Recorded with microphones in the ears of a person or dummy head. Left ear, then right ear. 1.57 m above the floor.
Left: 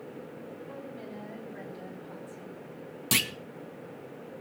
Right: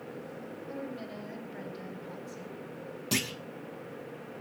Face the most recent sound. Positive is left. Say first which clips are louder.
# left 5 dB
turn(degrees=40)  # may be behind; listen again after turning